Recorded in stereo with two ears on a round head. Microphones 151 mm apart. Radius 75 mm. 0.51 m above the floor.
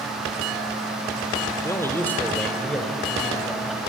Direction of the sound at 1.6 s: 20° left (ahead or behind).